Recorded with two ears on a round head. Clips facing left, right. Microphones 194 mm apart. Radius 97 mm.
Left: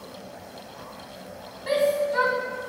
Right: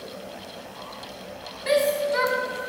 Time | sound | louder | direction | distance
1.7 | a shout | right 1 dB | 30° right (ahead or behind) | 1.3 m